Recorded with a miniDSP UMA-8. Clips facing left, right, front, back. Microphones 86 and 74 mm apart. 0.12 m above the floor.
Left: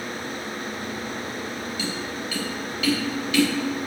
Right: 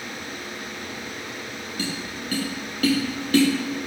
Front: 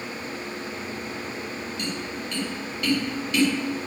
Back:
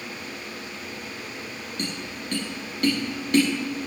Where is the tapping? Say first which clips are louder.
Left 1 dB, back 1 dB; 135° right, 5 m.